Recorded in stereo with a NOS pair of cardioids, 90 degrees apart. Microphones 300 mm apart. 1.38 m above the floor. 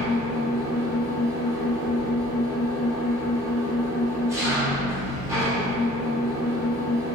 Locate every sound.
0.0 s an engine running: 10° right, 1.6 m